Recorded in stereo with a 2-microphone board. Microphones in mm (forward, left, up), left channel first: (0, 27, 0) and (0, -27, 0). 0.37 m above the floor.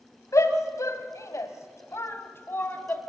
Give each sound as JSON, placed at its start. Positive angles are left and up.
{"t": 0.3, "sound": "a shout", "side_deg": 65, "distance_m": 2.0}